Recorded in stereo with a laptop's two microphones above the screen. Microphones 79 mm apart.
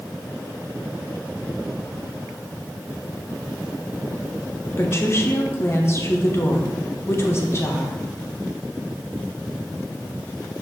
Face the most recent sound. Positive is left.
turn(degrees=35)  # may be behind; listen again after turning